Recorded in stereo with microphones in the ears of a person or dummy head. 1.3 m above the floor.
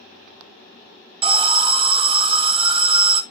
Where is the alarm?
25° right (ahead or behind), 0.9 m.